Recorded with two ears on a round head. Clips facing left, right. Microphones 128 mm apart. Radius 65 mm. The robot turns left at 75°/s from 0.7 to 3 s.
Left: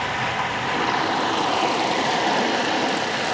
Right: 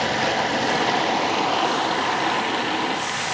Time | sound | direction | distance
0.0 | running water | 115° right | 1.1 m